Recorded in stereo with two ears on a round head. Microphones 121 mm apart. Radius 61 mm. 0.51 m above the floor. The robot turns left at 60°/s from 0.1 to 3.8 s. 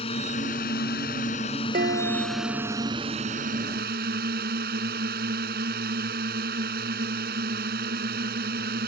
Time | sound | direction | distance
0.0 | a drone | 135° left | ?
1.7 | dishes clattering | 70° right | ?